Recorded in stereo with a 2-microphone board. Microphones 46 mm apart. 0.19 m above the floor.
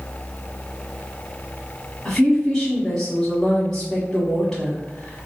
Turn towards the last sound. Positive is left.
turn(degrees=10)  # may be behind; listen again after turning